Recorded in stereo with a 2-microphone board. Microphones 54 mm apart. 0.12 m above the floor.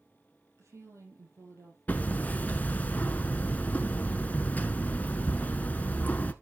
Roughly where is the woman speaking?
Right.